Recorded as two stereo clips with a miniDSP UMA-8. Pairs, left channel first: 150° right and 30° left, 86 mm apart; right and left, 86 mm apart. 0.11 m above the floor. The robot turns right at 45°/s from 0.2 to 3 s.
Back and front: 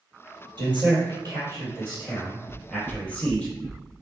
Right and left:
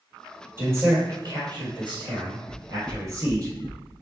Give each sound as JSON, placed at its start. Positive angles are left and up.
{"t": 0.6, "sound": "a man speaking", "azimuth_deg": 40, "distance_m": 1.8}
{"t": 2.5, "sound": "knocking", "azimuth_deg": -45, "distance_m": 1.5}